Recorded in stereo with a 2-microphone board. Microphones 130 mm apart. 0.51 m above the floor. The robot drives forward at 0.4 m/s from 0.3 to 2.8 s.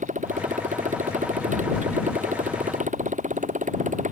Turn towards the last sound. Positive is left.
turn(degrees=-75)  # may be behind; listen again after turning